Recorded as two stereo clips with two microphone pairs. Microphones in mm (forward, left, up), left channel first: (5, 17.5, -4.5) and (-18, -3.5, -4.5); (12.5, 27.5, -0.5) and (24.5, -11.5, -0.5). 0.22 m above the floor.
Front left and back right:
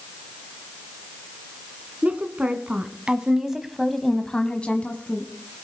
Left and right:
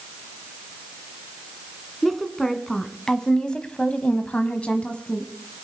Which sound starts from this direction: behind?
A woman speaking, at 2.0 s.